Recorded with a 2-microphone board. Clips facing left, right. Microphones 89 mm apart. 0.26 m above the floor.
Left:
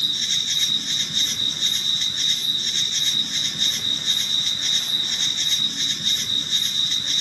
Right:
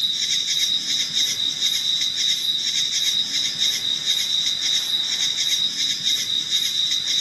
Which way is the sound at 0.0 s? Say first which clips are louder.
Left 1 dB; 45° left (ahead or behind).